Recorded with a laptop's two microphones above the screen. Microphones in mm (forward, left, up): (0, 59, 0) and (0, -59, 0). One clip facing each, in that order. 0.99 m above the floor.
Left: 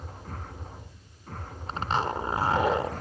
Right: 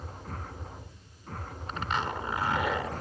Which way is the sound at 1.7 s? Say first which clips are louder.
Left 4 dB; 35° left (ahead or behind).